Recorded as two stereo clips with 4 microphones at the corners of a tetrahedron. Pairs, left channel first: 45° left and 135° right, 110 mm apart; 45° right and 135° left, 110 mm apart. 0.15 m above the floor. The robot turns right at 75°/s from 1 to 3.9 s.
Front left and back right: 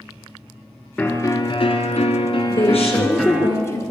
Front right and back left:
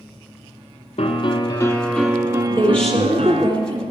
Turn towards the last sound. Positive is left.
turn(degrees=120)